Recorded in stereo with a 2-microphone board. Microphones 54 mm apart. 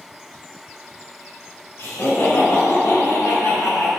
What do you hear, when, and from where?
1.8 s laughter: 45° left (ahead or behind), 3 m; by 3.9 s 70° left (ahead or behind), 3.5 m